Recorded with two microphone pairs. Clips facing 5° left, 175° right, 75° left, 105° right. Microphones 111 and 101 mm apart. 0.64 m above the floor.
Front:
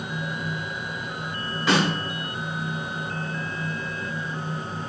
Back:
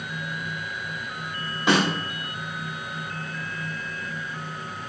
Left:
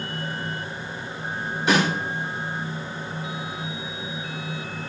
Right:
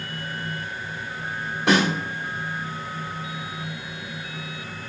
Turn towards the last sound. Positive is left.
turn(degrees=-110)